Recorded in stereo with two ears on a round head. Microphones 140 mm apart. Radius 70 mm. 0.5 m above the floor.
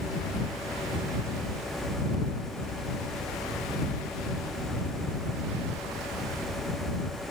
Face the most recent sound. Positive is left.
No sound to turn to.